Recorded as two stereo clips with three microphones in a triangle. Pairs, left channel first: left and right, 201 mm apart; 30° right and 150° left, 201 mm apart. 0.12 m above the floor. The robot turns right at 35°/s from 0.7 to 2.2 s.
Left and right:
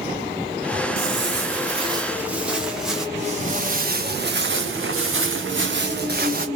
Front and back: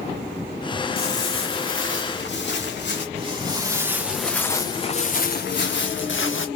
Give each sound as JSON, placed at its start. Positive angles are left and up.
{"t": 1.0, "sound": "footsteps", "azimuth_deg": -75, "distance_m": 0.5}
{"t": 3.1, "sound": "footsteps", "azimuth_deg": -145, "distance_m": 1.3}